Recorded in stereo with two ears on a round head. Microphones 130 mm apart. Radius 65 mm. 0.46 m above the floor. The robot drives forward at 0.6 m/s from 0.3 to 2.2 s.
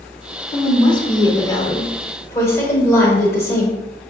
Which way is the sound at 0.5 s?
35° left (ahead or behind).